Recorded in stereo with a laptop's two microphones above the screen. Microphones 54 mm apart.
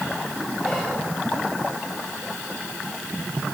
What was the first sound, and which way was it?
Whispering, 15° left (ahead or behind).